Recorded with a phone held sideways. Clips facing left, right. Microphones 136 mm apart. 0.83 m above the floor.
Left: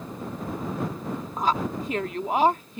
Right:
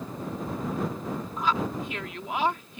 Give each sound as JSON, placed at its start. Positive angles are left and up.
{"t": 1.4, "sound": "a woman speaking", "side_deg": 40}